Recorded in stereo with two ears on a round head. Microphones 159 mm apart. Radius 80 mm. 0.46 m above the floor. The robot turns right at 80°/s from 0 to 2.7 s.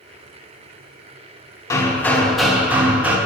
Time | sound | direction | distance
1.7 | hammering | 20° left (ahead or behind) | 0.7 m